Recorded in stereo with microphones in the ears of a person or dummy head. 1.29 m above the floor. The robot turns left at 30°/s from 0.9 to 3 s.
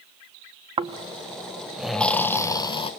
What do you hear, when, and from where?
0.8 s snoring: 150° right, 0.6 m; by 2.9 s 150° left, 0.6 m